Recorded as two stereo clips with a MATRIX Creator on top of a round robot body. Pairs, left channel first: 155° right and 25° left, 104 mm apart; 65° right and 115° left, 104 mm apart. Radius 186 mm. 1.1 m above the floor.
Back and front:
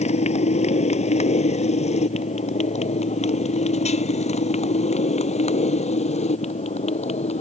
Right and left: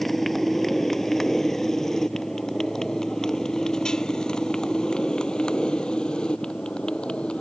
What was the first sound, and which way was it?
A motorcycle, 155° right.